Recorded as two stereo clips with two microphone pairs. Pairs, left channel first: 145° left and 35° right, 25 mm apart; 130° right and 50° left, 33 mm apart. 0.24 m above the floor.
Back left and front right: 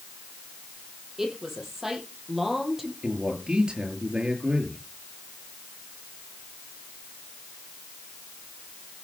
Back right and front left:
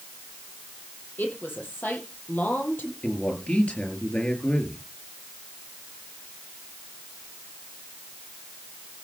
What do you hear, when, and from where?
1.2 s a woman speaking: 110° right, 7.5 m; by 2.9 s 115° right, 6.5 m
3.0 s a man speaking: 85° right, 5.5 m